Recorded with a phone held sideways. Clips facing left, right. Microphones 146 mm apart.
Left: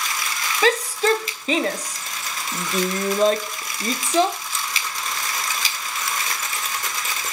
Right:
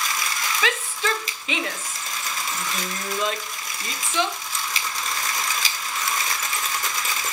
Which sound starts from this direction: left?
A shout, at 0.6 s.